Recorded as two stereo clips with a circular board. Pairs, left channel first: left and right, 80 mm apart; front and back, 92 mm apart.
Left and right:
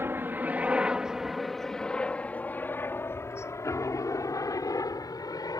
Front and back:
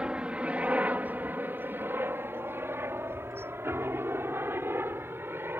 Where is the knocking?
No knocking in this recording.